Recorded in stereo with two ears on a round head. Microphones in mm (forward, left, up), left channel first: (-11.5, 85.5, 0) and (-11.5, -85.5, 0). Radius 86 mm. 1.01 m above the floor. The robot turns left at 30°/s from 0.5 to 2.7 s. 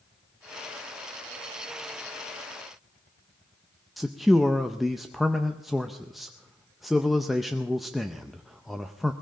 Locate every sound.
4.0 s a man speaking: centre (ahead or behind), 0.5 m